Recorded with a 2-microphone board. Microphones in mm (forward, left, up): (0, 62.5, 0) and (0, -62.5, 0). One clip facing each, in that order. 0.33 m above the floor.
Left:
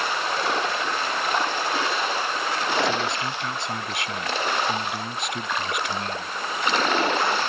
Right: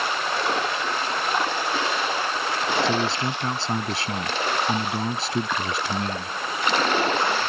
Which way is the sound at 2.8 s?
35° right (ahead or behind).